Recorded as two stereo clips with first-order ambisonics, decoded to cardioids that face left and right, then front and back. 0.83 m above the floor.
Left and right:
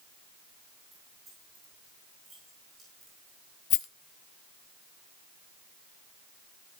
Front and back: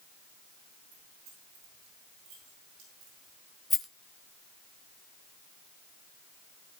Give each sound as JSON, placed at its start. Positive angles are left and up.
{"t": 0.9, "sound": "keys jangling", "azimuth_deg": -155, "distance_m": 9.0}
{"t": 3.7, "sound": "a rattle", "azimuth_deg": 75, "distance_m": 1.3}